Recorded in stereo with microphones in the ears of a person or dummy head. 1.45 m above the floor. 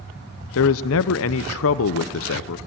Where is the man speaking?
75° left (ahead or behind), 0.5 m.